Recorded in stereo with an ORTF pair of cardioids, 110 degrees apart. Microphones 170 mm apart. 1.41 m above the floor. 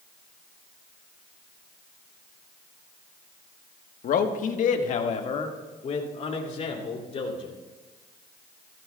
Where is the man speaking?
55° left, 1.3 m; by 7.5 s 35° left, 3.5 m.